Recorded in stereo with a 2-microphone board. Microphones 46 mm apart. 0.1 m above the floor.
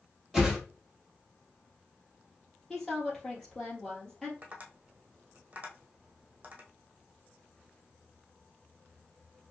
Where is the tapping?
30° right (ahead or behind), 1.3 m.